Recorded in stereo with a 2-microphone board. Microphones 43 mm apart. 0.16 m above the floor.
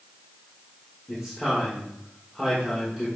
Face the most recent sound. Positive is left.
turn(degrees=5)  # may be behind; listen again after turning